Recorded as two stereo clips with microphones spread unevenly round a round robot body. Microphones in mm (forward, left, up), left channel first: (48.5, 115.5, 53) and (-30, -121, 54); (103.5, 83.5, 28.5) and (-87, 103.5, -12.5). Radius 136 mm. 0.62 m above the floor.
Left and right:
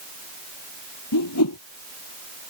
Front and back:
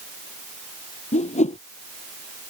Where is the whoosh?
45° left.